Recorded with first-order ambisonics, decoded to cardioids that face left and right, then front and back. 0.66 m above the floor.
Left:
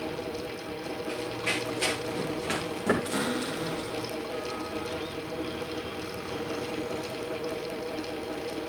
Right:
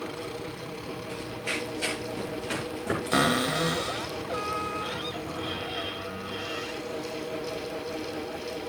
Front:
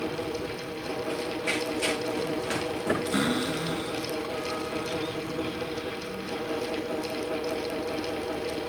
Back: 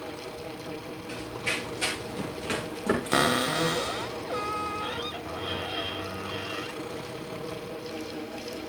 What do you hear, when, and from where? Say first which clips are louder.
1.1 s running footsteps: left 2 dB, even; 135° left, 10 m; by 4.1 s 115° left, 12 m
3.1 s a cupboard door: right 6 dB, back 3 dB; 150° right, 1.0 m